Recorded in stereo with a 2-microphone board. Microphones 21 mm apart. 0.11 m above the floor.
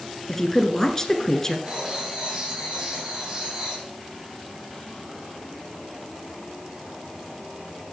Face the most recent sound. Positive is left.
turn(degrees=-40)  # may be behind; listen again after turning